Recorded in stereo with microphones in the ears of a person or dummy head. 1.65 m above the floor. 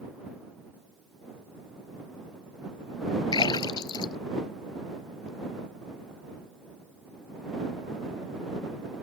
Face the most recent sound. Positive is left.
turn(degrees=30)  # may be behind; listen again after turning